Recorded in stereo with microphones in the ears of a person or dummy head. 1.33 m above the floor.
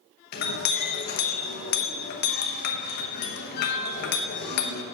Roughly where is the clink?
Left.